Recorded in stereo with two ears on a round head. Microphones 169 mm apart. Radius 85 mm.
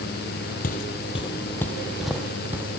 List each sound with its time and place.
0.6 s footsteps: 50° left (ahead or behind), 1.4 m; by 2.8 s 15° right (ahead or behind), 2.5 m